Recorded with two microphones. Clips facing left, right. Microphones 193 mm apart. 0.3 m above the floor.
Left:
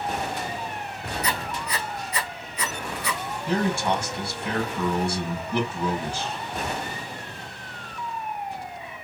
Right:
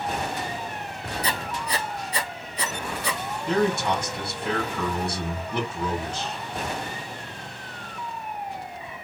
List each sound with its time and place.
1.2 s writing: 35° right (ahead or behind), 0.8 m
3.5 s a man speaking: 10° left (ahead or behind), 2.5 m